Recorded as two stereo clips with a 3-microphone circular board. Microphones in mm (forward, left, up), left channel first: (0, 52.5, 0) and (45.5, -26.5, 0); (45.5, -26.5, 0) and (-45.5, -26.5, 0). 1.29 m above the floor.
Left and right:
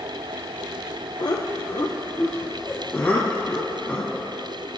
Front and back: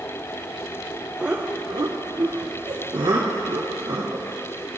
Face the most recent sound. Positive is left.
turn(degrees=-165)